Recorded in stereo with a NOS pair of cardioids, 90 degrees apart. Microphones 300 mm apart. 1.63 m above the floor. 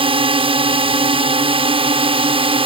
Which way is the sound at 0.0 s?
20° right.